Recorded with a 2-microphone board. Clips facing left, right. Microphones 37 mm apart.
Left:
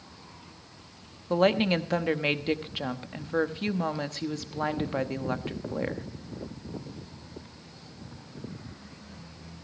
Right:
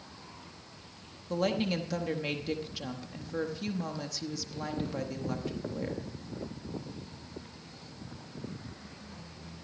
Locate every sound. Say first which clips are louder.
1.3 s a woman speaking: left 7 dB; 45° left (ahead or behind), 1.0 m